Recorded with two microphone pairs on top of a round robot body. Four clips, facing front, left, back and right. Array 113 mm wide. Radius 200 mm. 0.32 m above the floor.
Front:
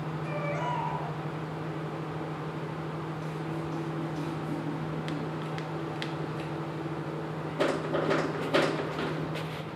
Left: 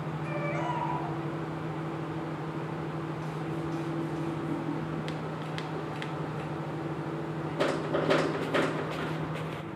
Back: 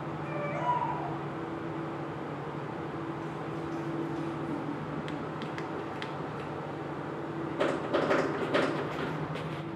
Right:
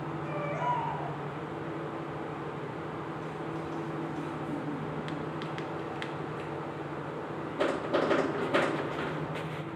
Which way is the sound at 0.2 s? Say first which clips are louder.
Right 1 dB, back 2 dB; 50° left.